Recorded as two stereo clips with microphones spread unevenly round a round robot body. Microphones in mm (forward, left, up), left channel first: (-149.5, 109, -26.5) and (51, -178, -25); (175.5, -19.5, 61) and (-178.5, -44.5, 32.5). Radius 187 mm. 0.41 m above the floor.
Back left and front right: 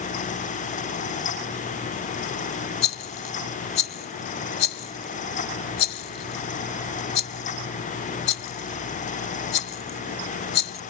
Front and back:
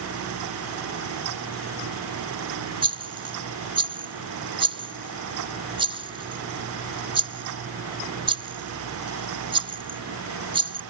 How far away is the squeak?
No squeak in this recording.